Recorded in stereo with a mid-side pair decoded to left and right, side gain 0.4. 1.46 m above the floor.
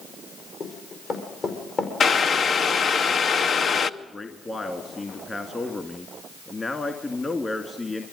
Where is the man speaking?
30° left, 2 m.